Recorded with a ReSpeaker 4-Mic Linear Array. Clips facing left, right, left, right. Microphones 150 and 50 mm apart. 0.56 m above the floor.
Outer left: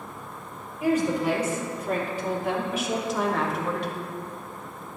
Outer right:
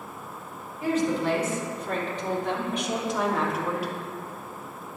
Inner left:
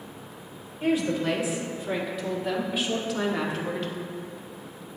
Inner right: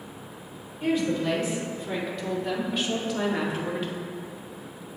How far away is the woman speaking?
About 2.5 m.